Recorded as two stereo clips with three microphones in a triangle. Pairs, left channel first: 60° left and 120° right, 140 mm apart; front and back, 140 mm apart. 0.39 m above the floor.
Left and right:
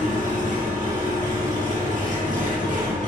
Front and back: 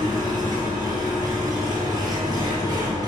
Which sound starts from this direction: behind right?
An engine running, at 0.0 s.